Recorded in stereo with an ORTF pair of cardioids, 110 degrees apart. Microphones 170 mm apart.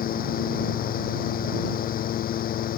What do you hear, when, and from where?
0.0 s a fan: 60° left